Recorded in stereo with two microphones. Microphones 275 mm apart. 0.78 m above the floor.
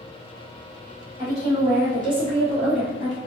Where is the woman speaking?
20° right (ahead or behind), 1.9 m; by 3.2 s 50° right (ahead or behind), 1.5 m.